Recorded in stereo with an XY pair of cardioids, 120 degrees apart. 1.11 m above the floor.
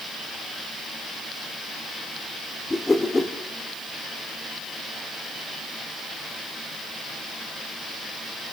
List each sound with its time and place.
2.7 s a whoosh: 15° left, 1.5 m